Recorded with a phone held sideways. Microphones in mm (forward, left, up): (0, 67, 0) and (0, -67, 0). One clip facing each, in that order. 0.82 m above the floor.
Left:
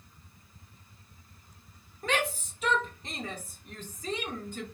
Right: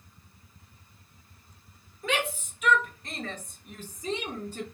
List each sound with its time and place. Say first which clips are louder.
2.0 s a shout: even; 45° left (ahead or behind), 1.1 m; by 4.7 s 40° right (ahead or behind), 0.8 m